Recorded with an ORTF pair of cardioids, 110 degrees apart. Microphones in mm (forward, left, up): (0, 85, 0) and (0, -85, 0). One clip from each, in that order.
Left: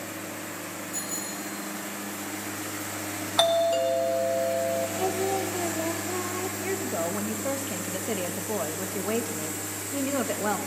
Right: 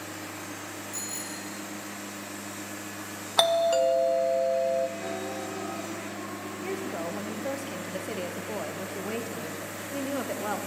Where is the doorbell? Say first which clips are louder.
Even; 15° right, 0.8 m.